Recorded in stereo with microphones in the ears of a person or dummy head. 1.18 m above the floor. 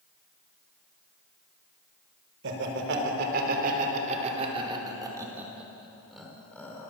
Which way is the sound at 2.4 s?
60° right (ahead or behind).